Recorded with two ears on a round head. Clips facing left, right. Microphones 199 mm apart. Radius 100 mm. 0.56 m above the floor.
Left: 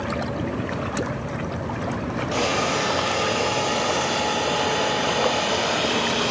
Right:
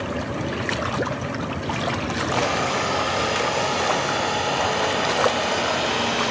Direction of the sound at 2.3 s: 15° left (ahead or behind).